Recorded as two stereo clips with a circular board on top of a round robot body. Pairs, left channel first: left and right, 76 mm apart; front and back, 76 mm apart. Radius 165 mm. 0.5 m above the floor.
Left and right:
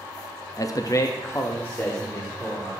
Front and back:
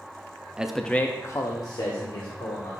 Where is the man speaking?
105° left, 0.9 m; by 2.8 s 15° left, 2.5 m.